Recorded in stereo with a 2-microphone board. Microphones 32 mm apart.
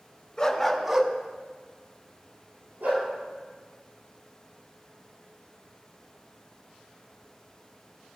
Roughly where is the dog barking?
Left.